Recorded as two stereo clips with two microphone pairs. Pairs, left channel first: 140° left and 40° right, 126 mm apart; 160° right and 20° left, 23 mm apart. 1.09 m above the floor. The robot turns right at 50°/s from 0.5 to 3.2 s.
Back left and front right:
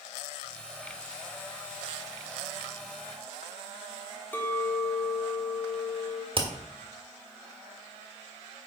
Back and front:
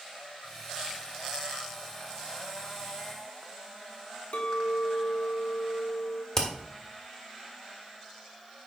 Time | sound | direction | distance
4.3 | a clink | 145° right | 1.6 m
6.3 | hammering | 85° right | 1.6 m